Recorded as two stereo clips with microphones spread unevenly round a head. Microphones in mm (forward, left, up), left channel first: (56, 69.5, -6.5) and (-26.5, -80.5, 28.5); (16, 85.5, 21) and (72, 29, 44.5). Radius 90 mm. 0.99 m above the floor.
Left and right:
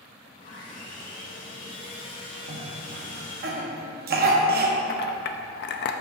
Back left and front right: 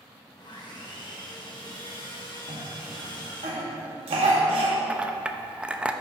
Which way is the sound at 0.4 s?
110° left.